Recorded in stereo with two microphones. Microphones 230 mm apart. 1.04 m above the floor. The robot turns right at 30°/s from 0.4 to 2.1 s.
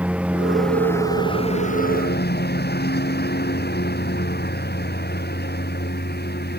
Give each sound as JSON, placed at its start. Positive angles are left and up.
{"t": 0.0, "sound": "a lawn mower", "azimuth_deg": -5}